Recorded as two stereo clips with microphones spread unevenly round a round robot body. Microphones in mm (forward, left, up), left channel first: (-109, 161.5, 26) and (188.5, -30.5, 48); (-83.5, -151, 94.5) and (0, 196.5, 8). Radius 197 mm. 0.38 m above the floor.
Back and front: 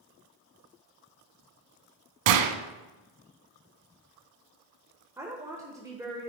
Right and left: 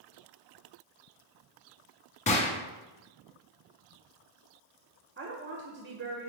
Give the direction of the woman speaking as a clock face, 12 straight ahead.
10 o'clock.